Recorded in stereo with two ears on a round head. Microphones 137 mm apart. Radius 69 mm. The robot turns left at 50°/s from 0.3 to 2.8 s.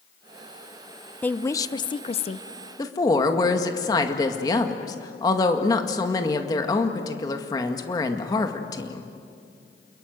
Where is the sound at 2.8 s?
25° left (ahead or behind), 1.9 m.